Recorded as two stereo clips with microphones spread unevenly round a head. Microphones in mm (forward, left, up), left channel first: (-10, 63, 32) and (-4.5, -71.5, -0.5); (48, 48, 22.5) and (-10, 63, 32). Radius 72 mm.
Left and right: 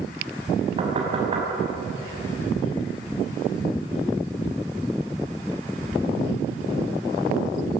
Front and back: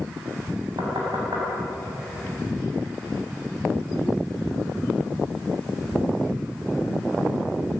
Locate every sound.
0.8 s knocking: 145° right, 6.5 m